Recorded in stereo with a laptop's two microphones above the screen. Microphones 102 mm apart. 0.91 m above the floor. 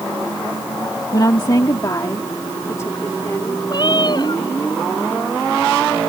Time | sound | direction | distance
1.1 | a woman speaking | 45° left (ahead or behind) | ?
3.7 | a cat meowing | 45° left (ahead or behind) | ?